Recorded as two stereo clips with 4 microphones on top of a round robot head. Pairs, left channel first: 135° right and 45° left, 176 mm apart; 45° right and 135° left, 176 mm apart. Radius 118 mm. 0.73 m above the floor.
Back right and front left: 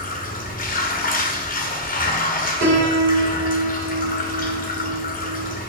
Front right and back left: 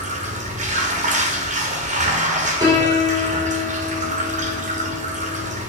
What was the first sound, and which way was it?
Running water, 175° right.